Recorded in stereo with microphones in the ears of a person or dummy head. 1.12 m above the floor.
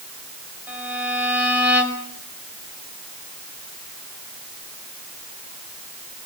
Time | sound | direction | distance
0.7 | a violin | 5° right (ahead or behind) | 5.5 m